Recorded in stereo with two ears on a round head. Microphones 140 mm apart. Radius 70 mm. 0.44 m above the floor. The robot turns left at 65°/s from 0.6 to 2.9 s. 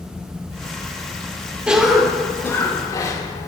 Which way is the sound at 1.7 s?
10° right (ahead or behind).